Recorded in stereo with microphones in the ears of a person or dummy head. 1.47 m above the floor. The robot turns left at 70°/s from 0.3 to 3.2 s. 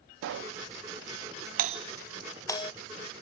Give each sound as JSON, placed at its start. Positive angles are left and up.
{"t": 0.2, "sound": "a pop", "side_deg": -65}
{"t": 1.6, "sound": "a doorbell", "side_deg": -35}